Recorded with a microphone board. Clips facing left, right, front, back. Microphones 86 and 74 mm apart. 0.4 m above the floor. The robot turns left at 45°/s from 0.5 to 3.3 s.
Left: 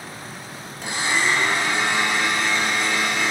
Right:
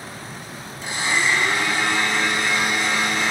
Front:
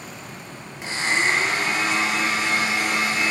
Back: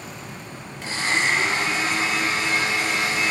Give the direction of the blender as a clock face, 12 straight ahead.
10 o'clock.